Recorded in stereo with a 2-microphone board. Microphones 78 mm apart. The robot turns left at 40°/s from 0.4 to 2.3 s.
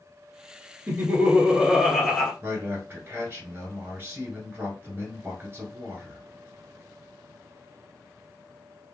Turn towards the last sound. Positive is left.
turn(degrees=-25)  # may be behind; listen again after turning